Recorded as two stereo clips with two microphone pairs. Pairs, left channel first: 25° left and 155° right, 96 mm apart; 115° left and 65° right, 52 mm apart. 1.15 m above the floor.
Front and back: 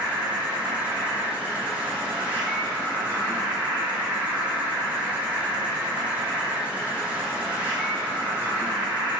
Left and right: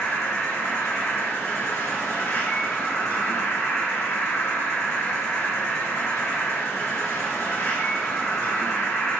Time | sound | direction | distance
0.0 | an insect | 130° left | 2.5 m